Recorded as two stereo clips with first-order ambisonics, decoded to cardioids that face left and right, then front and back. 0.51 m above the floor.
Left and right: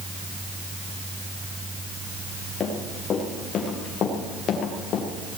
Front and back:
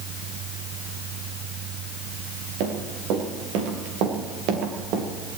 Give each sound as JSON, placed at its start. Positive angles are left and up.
{"t": 2.6, "sound": "running footsteps", "azimuth_deg": 155, "distance_m": 7.0}